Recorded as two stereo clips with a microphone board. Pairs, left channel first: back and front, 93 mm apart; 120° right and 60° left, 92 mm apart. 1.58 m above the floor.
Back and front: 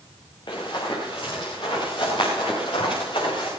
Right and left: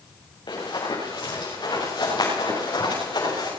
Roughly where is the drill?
I don't hear a drill.